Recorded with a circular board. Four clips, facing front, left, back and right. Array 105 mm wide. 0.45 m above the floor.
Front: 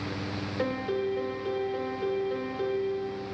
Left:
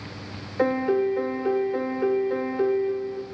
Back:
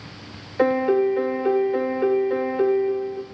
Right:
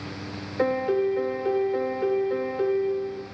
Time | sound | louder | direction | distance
0.6 | a piano | left 1 dB, back 12 dB | 170° left | 0.8 m